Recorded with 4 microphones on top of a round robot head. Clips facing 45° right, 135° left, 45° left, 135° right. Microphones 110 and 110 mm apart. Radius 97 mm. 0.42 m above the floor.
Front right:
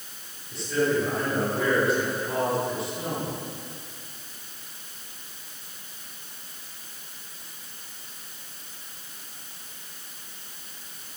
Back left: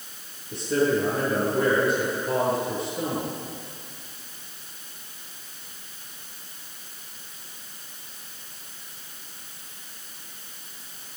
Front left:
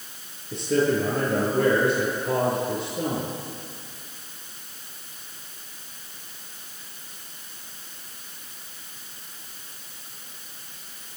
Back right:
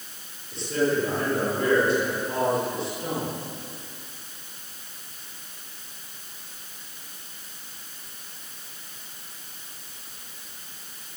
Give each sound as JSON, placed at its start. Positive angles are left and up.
{"t": 0.5, "sound": "a man speaking", "azimuth_deg": 70, "distance_m": 8.5}